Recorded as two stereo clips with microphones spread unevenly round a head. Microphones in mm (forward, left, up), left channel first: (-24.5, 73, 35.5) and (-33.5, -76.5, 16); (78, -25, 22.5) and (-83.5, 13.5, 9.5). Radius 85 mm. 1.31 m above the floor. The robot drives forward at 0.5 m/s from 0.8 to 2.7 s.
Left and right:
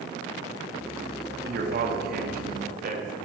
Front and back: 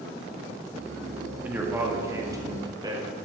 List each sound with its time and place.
1.4 s a man speaking: 115° right, 2.5 m; by 3.2 s 125° right, 3 m